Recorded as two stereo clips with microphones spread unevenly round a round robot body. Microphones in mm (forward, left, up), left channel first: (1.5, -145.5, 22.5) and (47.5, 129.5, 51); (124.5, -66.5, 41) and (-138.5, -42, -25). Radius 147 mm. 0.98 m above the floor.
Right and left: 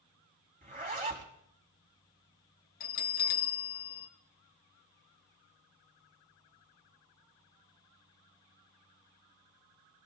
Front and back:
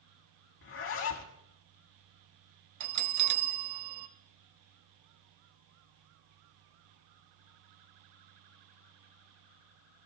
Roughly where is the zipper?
Ahead left.